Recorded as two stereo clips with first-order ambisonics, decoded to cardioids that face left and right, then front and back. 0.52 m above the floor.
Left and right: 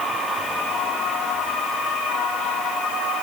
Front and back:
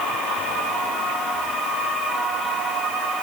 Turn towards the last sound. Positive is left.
No sound to turn to.